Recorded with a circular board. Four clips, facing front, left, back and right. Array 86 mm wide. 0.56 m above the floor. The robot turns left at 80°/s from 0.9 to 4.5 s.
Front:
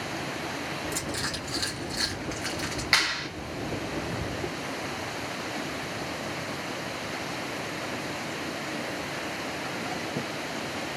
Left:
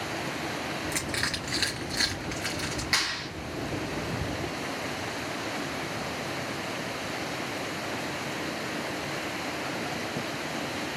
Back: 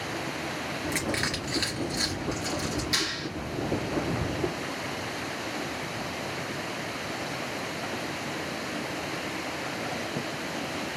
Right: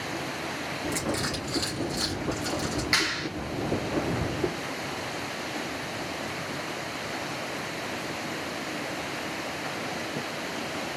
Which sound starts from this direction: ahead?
A clap, at 2.9 s.